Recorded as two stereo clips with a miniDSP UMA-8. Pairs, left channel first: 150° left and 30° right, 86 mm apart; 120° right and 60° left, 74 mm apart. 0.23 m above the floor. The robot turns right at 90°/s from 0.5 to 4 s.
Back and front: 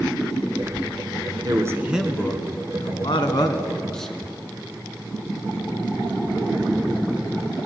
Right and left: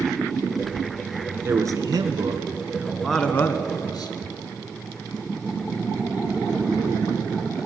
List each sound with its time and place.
1.4 s a man speaking: 5° left, 2.5 m; by 4.1 s 125° right, 2.5 m